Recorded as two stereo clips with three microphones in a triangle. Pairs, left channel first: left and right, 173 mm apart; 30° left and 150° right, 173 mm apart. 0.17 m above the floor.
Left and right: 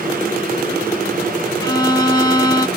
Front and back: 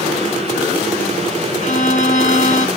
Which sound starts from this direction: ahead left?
A violin, at 1.6 s.